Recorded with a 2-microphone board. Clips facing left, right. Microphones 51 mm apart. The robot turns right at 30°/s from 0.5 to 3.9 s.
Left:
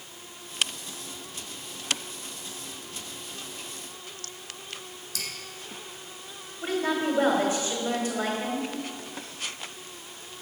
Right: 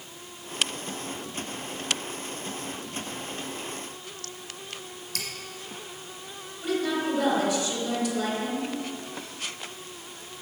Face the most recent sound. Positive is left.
turn(degrees=35)  # may be behind; listen again after turning